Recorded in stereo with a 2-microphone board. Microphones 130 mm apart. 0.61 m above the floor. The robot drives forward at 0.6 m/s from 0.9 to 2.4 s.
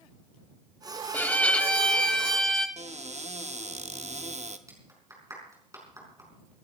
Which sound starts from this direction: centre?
A violin, at 1.1 s.